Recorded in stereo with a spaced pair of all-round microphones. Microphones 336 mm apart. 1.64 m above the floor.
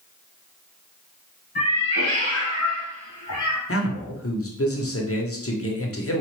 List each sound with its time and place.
1.6 s a cat meowing: 35° right (ahead or behind), 1.9 m; by 3.6 s 60° right (ahead or behind), 2.5 m
3.7 s a man speaking: 45° left (ahead or behind), 0.7 m